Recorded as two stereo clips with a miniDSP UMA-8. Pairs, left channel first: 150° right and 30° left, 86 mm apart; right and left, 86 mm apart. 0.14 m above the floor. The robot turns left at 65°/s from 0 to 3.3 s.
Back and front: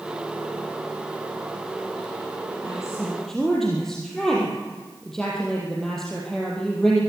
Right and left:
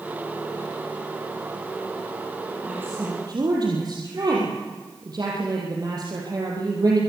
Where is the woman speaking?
170° left, 4.5 m; by 7.0 s 125° left, 4.5 m.